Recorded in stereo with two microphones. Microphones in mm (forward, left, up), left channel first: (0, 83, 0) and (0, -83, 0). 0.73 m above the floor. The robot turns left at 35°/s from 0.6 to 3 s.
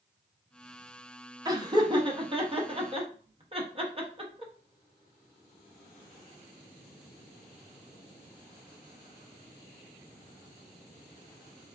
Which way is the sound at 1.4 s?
20° right (ahead or behind).